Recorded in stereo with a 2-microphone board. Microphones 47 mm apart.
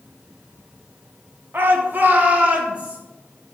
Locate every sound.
1.5 s a shout: 45° right (ahead or behind), 2 m; by 3.0 s 25° right (ahead or behind), 3.5 m